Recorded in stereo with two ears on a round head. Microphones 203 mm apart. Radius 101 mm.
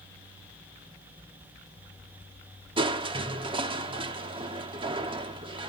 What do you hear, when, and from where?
2.8 s crushing: 20° right (ahead or behind), 1.0 m